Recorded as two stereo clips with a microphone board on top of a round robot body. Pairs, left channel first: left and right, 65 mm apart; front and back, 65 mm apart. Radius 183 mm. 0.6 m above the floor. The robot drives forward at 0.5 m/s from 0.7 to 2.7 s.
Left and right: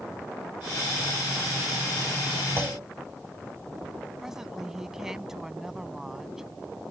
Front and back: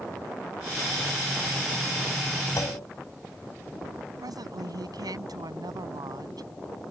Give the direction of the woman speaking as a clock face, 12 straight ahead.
6 o'clock.